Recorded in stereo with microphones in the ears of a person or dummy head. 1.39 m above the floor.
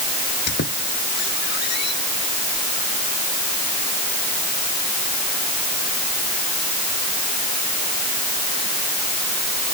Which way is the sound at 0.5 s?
60° left (ahead or behind).